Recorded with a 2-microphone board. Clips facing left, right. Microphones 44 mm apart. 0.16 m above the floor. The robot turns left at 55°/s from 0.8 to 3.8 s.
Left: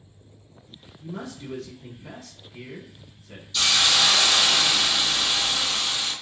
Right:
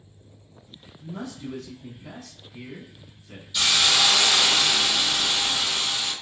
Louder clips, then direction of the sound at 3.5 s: Even; 15° right (ahead or behind).